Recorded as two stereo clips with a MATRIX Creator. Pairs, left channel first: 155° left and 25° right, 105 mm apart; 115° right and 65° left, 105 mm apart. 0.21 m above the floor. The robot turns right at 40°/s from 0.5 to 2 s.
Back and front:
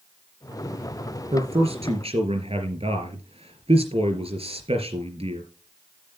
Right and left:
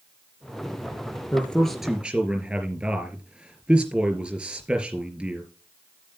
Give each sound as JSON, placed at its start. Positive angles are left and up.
{"t": 1.3, "sound": "a man speaking", "azimuth_deg": -45, "distance_m": 3.5}